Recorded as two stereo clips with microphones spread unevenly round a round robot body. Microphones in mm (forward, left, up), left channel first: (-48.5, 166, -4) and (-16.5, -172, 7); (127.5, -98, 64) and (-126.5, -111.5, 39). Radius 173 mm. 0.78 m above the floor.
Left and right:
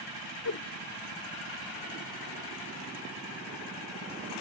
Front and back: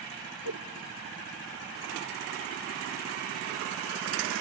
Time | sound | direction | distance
0.5 | a whoosh | 140° left | 0.6 m